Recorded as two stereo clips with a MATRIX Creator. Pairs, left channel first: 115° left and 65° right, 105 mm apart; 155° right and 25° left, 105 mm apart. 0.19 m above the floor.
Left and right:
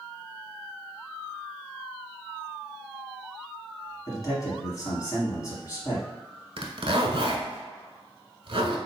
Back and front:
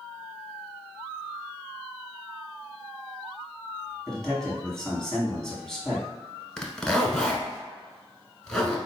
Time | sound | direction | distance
4.1 | a man speaking | 120° left | 1.3 m
6.6 | a zipper | 75° right | 0.8 m